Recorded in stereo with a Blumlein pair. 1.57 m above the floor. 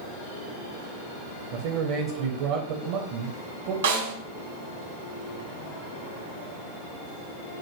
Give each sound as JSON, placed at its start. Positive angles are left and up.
{"t": 1.5, "sound": "a man speaking", "azimuth_deg": -45, "distance_m": 0.6}
{"t": 3.8, "sound": "a snare drum", "azimuth_deg": -60, "distance_m": 0.9}